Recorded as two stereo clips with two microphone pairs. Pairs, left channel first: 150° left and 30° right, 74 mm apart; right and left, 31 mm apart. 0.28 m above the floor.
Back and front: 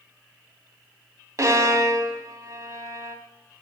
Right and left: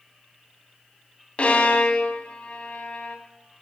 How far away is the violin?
About 1.6 m.